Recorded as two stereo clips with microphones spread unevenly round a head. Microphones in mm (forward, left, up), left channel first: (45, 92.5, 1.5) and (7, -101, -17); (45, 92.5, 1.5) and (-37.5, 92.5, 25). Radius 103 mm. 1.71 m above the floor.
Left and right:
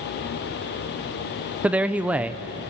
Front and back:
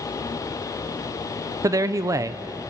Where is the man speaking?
170° left, 0.6 m.